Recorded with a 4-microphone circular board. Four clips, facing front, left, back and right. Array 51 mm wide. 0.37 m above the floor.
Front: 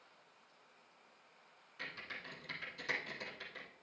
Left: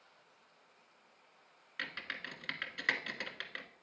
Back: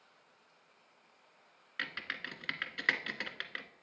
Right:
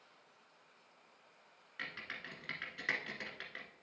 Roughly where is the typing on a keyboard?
Behind.